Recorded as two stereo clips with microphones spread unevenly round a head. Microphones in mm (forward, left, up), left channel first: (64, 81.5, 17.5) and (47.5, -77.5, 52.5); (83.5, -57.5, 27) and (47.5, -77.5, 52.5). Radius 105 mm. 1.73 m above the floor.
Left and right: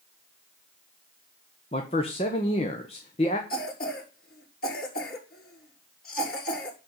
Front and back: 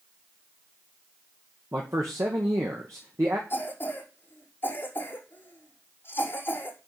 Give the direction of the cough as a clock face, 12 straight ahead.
10 o'clock.